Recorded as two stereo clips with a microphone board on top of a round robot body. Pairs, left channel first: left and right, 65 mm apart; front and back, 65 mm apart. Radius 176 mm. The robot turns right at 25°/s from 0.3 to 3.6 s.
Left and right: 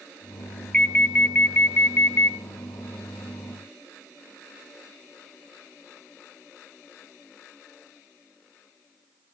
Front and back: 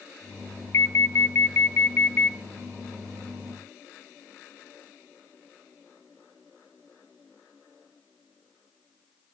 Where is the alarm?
20° left, 1.0 m; by 2.4 s 60° left, 1.0 m.